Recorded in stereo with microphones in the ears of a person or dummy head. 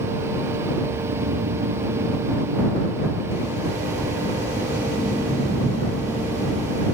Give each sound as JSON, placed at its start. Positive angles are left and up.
{"t": 0.8, "sound": "snoring", "side_deg": -70}